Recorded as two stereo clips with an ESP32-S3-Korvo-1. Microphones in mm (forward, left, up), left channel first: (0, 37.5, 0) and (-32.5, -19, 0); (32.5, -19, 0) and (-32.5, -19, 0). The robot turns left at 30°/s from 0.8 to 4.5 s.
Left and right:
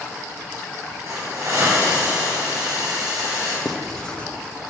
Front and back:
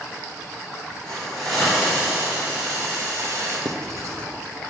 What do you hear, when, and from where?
1.1 s a hiss: 75° right, 4.5 m; by 3.5 s 150° right, 4.5 m
3.6 s writing: 150° left, 0.9 m; by 4.3 s 130° left, 0.9 m